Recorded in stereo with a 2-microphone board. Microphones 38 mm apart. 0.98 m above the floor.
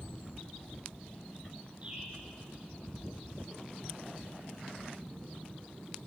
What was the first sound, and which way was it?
A bird, 35° right (ahead or behind).